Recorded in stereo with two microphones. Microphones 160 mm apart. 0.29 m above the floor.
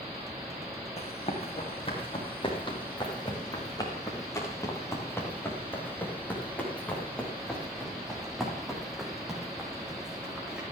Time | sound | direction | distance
1.0 | running footsteps | 40° left (ahead or behind) | 5.5 m